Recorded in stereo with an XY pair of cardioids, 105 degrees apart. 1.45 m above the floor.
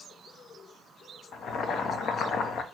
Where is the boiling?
65° left, 0.6 m.